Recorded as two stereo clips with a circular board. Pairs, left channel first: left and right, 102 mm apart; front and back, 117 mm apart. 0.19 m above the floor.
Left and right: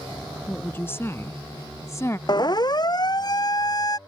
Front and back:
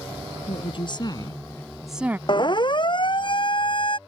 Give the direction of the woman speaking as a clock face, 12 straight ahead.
11 o'clock.